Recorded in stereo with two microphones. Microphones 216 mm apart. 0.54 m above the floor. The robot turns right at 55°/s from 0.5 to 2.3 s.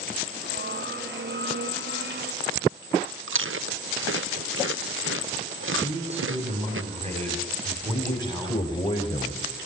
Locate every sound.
3.3 s chewing: 70° right (ahead or behind), 0.7 m
5.8 s a man speaking: 30° right (ahead or behind), 3.5 m
7.9 s a man speaking: 20° left (ahead or behind), 2.5 m